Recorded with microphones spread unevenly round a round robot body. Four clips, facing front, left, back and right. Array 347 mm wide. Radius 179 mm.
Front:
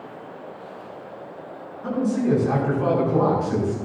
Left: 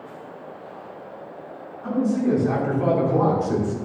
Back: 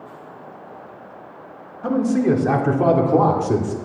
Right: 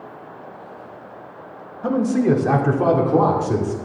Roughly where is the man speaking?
Behind right.